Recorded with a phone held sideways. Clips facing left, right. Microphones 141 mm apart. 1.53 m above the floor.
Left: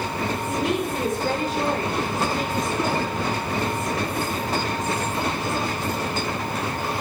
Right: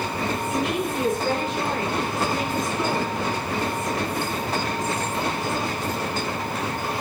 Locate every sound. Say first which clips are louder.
0.5 s a woman speaking: left 2 dB; 40° left (ahead or behind), 4 m